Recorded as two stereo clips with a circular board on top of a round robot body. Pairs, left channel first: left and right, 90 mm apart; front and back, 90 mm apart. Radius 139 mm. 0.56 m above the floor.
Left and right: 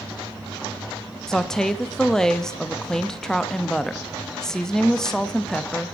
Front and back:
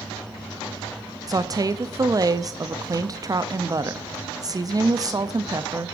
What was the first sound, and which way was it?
A woman speaking, 170° left.